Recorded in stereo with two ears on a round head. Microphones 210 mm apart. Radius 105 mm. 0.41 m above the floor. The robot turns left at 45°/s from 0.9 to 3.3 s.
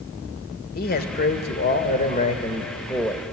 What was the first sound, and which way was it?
A man speaking, 105° left.